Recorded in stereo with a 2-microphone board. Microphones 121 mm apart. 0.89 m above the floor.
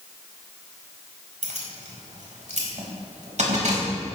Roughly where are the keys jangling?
Right.